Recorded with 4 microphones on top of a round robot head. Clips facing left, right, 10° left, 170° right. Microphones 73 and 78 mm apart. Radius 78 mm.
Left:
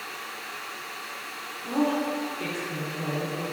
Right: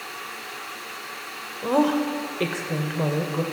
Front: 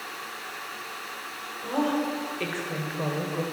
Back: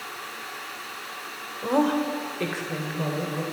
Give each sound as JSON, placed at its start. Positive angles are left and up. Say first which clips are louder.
{"t": 1.6, "sound": "a woman speaking", "louder": "right 5 dB, back 4 dB", "azimuth_deg": -120, "distance_m": 2.0}